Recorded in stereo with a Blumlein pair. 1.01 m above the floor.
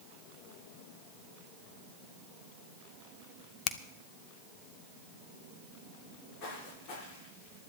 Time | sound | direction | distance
3.7 | a finger snap | 30° left | 0.8 m
6.0 | footsteps | 35° left | 6 m